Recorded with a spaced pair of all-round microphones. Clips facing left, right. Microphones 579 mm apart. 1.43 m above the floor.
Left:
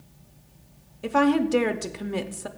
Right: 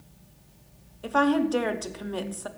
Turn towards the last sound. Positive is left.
turn(degrees=50)  # may be behind; listen again after turning